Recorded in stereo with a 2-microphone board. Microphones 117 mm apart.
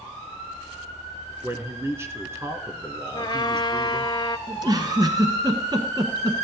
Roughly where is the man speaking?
Right.